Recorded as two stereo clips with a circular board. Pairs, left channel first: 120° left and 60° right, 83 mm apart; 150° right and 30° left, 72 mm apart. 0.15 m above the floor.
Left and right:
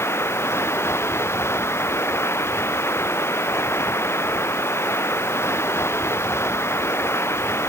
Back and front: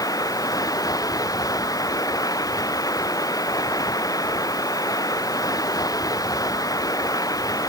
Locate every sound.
0.0 s running water: straight behind